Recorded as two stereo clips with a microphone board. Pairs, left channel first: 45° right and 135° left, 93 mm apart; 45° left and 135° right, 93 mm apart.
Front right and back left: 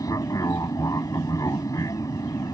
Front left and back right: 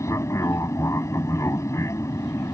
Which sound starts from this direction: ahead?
An aircraft, at 0.0 s.